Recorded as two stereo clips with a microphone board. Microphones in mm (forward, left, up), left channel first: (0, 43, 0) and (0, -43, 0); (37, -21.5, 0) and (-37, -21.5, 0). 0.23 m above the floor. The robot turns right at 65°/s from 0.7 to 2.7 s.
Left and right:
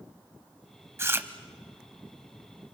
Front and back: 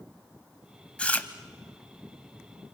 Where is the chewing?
65° right, 1.1 m; by 1.3 s 45° right, 1.1 m.